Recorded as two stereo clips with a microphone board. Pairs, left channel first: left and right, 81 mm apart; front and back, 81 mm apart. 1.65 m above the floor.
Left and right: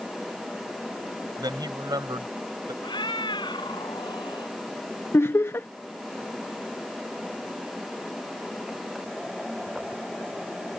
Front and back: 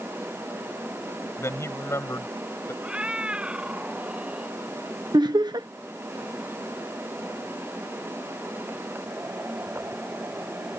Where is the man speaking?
55° right.